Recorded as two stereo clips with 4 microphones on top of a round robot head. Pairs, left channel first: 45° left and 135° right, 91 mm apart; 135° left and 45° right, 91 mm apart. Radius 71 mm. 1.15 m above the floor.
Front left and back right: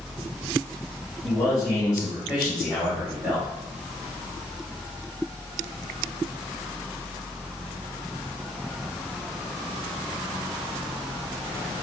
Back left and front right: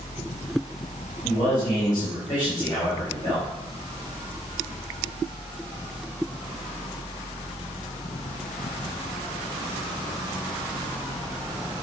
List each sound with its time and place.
1.2 s a man speaking: 95° left, 5 m